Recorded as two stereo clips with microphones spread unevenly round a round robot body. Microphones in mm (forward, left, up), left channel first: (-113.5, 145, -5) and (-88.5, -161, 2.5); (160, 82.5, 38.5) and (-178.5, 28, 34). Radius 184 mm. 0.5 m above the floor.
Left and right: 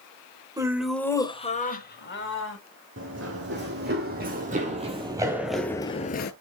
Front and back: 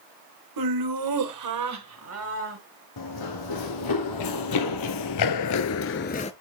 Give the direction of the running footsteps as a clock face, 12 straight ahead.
1 o'clock.